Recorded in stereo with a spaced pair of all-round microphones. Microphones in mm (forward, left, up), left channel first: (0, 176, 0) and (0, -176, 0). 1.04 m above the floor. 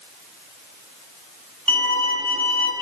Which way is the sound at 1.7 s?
70° right (ahead or behind).